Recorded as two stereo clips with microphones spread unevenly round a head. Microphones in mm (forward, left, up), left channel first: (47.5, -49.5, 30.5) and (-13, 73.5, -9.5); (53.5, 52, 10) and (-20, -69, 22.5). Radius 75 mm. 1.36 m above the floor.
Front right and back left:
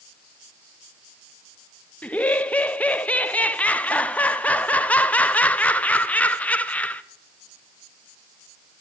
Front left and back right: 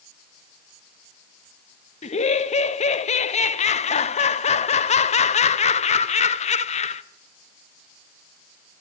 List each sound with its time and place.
2.0 s laughter: 20° left, 0.8 m